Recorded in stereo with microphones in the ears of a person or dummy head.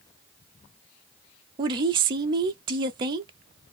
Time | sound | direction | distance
1.6 | a woman speaking | 30° right (ahead or behind) | 0.5 m